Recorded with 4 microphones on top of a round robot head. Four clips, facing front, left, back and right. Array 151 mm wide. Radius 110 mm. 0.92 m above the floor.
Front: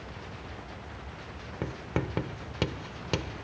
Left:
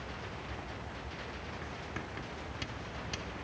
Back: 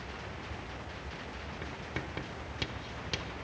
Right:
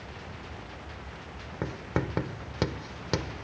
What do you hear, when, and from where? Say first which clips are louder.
1.6 s writing: right 16 dB, front 10 dB; 55° right